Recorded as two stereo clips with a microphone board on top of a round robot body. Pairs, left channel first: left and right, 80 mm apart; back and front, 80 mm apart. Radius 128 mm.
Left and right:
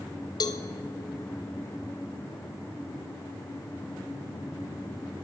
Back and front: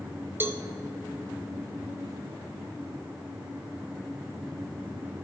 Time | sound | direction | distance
0.4 | a cowbell | 60° left | 0.5 m